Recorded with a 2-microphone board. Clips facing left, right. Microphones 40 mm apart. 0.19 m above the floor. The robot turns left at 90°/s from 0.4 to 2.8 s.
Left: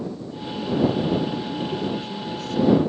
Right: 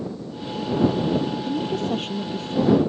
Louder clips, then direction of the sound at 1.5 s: Right 2 dB; 55° right.